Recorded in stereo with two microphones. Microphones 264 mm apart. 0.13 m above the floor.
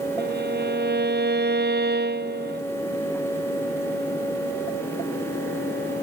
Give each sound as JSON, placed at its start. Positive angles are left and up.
{"t": 0.2, "sound": "a violin", "side_deg": -40}